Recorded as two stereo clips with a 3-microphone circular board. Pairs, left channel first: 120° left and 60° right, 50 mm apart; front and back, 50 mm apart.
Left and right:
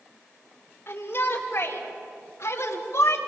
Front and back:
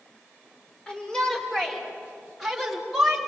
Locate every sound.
0.9 s a shout: 75° left, 5.5 m; by 3.2 s 95° left, 3.5 m